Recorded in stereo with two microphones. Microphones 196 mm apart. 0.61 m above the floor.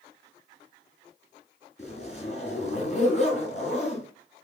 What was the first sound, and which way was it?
A zipper, 35° left (ahead or behind).